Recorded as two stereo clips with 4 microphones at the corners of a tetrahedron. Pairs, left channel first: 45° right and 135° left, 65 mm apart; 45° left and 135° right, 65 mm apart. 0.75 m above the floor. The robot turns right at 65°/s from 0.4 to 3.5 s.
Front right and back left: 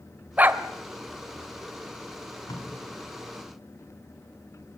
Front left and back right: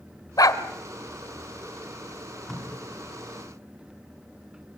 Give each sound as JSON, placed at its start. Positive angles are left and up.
{"t": 0.4, "sound": "a dog barking", "azimuth_deg": 70, "distance_m": 1.3}
{"t": 2.1, "sound": "tape being pulled", "azimuth_deg": -60, "distance_m": 9.5}